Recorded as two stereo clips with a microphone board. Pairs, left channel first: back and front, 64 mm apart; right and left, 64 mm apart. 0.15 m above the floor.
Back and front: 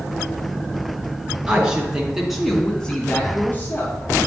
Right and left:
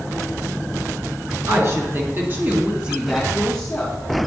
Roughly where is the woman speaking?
Left.